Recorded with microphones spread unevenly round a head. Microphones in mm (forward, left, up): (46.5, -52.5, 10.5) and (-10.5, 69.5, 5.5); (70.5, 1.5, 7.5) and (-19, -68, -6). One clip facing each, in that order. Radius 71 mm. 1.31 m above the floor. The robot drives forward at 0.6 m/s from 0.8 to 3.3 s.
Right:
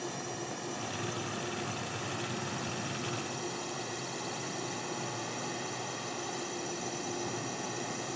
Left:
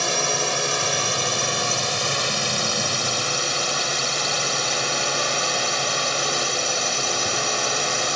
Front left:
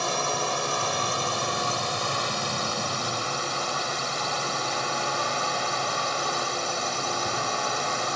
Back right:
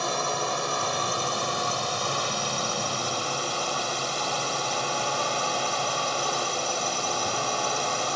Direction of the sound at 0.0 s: 125° left.